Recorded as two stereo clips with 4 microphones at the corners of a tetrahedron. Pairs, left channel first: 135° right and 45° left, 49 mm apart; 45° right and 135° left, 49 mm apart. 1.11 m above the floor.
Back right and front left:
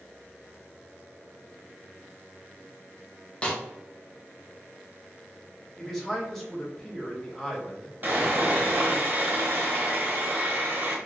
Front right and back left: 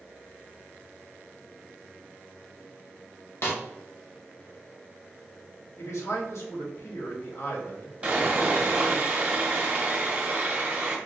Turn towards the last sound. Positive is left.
turn(degrees=75)